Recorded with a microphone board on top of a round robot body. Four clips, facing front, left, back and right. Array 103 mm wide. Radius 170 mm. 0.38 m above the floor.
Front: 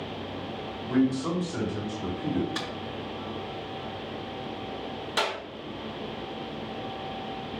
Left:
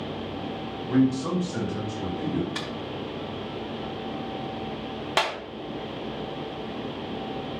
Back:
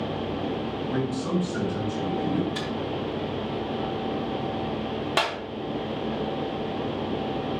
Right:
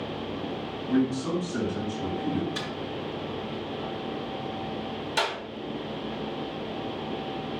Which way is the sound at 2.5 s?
75° left.